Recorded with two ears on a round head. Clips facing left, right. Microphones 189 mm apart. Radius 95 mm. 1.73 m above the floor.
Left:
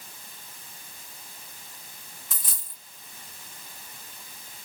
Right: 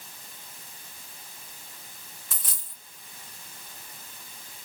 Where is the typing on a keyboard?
No typing on a keyboard in this recording.